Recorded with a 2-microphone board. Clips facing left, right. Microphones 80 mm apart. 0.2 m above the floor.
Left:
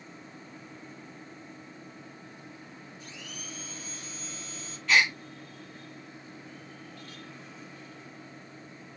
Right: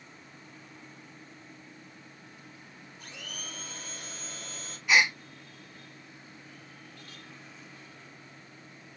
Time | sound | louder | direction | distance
3.0 | a blender | right 3 dB | 50° right (ahead or behind) | 3 m
4.9 | a gasp | even | 10° right (ahead or behind) | 1.4 m